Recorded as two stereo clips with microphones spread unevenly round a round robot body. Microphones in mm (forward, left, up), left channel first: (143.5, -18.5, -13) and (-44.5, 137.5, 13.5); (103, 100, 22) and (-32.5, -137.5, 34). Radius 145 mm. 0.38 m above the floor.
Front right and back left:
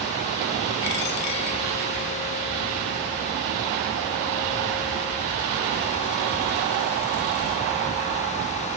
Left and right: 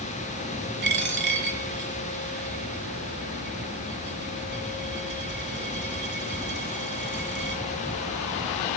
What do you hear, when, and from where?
0.8 s a dropped coin: 70° right, 3 m